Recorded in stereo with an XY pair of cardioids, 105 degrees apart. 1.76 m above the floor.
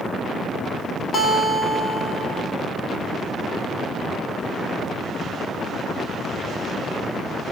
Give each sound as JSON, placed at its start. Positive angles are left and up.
{"t": 1.1, "sound": "a guitar", "azimuth_deg": 40, "distance_m": 1.8}